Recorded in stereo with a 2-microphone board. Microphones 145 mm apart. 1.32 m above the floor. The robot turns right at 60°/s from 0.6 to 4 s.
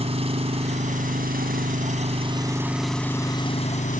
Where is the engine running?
135° right; by 4.0 s 70° left.